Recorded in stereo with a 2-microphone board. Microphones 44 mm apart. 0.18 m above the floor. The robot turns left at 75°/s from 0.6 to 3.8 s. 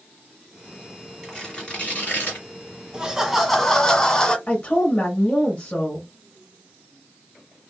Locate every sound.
1.2 s tearing paper: 175° left, 1.9 m; by 2.5 s 80° left, 1.9 m
2.9 s laughter: 145° right, 1.3 m; by 4.4 s 150° left, 1.3 m
4.5 s a woman speaking: 25° left (ahead or behind), 1.2 m